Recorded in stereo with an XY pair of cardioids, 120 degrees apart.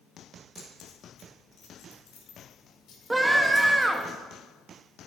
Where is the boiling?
No boiling in this recording.